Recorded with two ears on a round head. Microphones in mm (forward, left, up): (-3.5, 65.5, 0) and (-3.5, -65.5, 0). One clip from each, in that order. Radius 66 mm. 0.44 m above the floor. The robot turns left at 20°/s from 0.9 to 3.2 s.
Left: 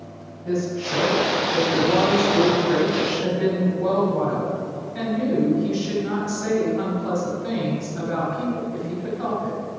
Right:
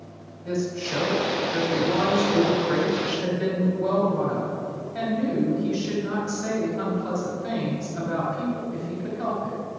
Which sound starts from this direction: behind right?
A woman speaking, at 0.5 s.